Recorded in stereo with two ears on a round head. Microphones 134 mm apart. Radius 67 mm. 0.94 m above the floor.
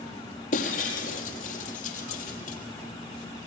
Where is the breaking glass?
50° left (ahead or behind), 4.5 m.